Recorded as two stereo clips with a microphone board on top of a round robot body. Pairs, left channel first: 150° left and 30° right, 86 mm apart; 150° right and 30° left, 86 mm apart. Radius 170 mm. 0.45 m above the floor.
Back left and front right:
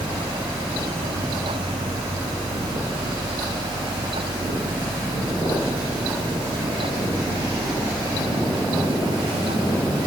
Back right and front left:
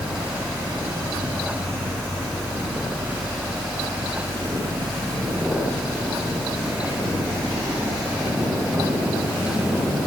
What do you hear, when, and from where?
Only background noise.